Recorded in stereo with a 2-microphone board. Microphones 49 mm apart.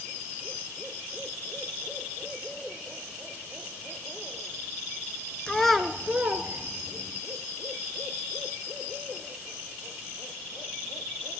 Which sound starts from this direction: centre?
A child speaking, at 5.5 s.